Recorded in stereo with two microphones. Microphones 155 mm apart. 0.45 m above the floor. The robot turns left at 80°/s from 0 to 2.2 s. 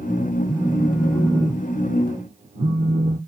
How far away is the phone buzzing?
About 0.6 m.